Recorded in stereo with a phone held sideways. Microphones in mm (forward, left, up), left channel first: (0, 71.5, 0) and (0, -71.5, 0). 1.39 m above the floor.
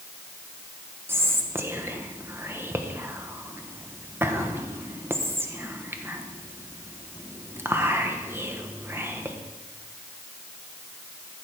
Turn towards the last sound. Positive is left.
turn(degrees=-15)  # may be behind; listen again after turning